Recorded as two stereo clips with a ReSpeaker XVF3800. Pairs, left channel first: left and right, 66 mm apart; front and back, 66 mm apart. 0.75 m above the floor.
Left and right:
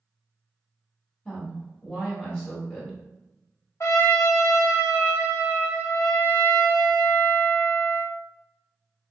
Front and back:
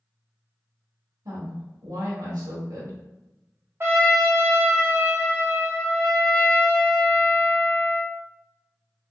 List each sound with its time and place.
1.2 s a woman speaking: 160° left, 1.2 m
3.8 s a trumpet: 130° left, 0.8 m